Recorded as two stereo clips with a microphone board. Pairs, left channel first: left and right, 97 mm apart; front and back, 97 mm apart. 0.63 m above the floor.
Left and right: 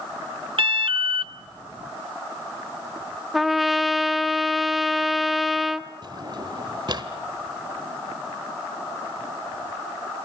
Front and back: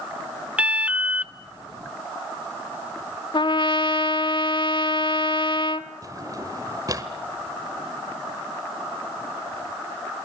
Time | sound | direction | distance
0.6 | an alarm | 105° right | 0.8 m
3.3 | a trumpet | straight ahead | 1.1 m
6.0 | a drawer | 130° right | 1.5 m